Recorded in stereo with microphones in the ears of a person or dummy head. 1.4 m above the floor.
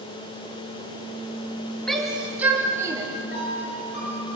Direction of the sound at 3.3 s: 55° left (ahead or behind).